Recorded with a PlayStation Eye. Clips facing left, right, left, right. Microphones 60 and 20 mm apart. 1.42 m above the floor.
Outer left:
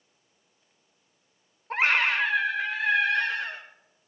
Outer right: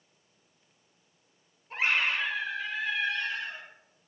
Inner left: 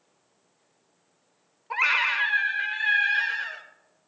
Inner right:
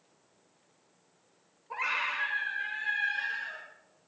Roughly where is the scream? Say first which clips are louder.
Outer left 4 dB, inner left 9 dB; left.